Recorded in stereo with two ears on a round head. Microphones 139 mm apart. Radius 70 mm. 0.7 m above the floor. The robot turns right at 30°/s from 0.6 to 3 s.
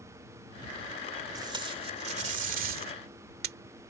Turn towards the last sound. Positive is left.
turn(degrees=-70)  # may be behind; listen again after turning